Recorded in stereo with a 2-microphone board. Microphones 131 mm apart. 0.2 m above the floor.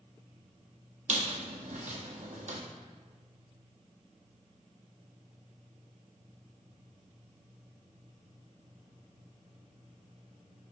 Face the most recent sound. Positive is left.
turn(degrees=-75)  # may be behind; listen again after turning